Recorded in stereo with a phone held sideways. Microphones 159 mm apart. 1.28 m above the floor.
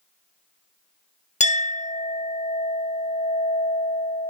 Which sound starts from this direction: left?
A clink, at 1.4 s.